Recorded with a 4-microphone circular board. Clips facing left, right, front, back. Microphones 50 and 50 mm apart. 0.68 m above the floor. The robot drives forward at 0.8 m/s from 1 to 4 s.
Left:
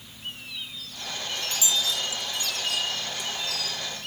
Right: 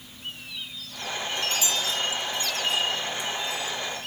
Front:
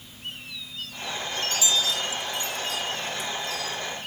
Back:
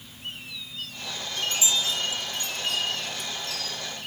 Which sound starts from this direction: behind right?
A chime, at 1.4 s.